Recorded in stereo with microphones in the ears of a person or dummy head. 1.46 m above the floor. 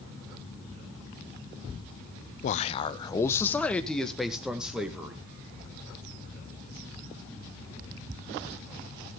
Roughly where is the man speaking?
Left.